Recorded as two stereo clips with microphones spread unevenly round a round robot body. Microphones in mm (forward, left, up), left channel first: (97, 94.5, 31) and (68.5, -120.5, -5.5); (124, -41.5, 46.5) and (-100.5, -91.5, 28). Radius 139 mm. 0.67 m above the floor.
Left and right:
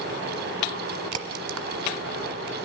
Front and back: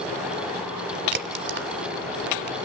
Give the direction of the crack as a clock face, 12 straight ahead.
4 o'clock.